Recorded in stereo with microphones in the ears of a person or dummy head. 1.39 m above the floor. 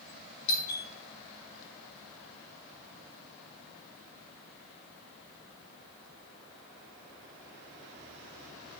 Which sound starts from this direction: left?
A doorbell, at 0.5 s.